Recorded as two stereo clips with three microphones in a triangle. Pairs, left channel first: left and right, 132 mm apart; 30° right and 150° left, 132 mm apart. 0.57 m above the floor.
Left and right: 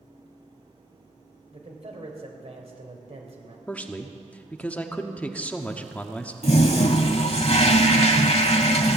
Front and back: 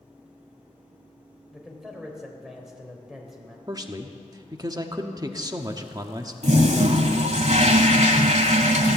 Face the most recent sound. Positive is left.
turn(degrees=125)